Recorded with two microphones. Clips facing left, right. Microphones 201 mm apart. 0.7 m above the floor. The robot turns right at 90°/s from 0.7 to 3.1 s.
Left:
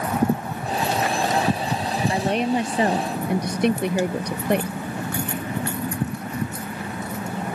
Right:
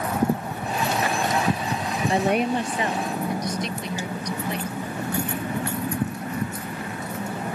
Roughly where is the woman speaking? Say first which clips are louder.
Right 1 dB; ahead right.